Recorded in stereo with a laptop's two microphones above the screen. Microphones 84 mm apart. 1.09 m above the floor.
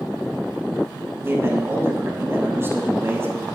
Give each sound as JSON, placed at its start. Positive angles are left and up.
{"t": 1.2, "sound": "a man speaking", "side_deg": -30, "distance_m": 6.5}